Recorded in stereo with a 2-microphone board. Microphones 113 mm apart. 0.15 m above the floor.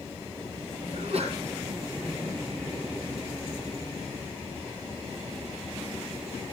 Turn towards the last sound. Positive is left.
turn(degrees=-65)  # may be behind; listen again after turning